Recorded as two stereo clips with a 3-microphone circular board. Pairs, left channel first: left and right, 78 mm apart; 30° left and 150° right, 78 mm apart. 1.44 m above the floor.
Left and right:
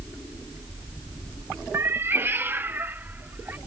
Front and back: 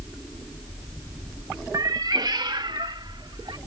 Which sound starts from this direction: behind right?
A cat meowing, at 1.7 s.